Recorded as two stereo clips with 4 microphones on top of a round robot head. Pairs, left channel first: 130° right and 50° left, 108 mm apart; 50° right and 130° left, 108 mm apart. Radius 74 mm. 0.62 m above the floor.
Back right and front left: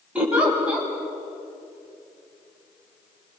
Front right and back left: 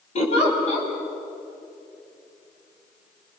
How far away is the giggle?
About 5 m.